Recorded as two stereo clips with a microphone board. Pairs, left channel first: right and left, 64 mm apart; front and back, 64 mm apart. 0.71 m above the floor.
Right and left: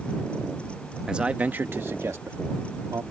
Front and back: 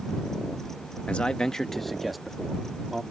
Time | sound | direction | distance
1.1 | a man speaking | 35° left | ?